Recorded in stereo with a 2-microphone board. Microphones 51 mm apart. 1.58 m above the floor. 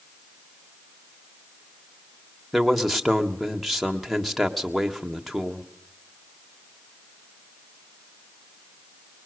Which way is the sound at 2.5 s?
Centre (ahead or behind).